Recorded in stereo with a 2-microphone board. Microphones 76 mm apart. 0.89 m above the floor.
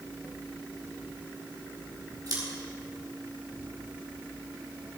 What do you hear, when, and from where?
2.3 s scissors: 55° right (ahead or behind), 4 m